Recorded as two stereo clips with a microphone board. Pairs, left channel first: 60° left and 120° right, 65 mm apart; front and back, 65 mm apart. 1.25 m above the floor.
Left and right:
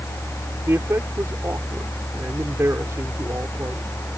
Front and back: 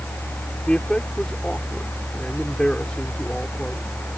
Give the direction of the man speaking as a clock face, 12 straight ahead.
2 o'clock.